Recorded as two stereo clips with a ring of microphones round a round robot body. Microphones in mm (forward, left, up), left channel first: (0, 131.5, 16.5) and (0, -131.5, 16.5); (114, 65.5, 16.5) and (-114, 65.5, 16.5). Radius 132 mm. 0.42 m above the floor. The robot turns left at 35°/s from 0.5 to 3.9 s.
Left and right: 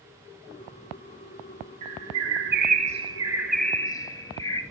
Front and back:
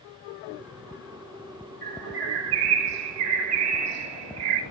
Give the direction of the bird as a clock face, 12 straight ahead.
4 o'clock.